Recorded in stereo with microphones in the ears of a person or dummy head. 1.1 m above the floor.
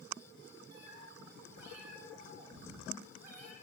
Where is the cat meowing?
65° right (ahead or behind), 7 m; by 3.5 s 55° right (ahead or behind), 6 m.